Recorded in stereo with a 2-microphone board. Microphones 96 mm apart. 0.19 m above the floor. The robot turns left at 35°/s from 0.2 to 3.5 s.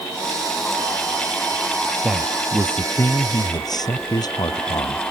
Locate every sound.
2.0 s a man speaking: 175° right; by 5.1 s 135° left